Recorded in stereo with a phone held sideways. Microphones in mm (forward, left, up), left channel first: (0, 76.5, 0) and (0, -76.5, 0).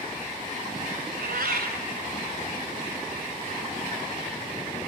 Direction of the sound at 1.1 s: 80° right.